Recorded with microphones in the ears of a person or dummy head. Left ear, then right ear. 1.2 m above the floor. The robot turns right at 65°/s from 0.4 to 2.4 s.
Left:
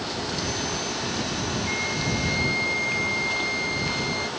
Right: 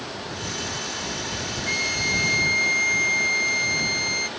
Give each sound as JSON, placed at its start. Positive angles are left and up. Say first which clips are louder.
{"t": 1.7, "sound": "a flute", "louder": "right 6 dB", "azimuth_deg": -100}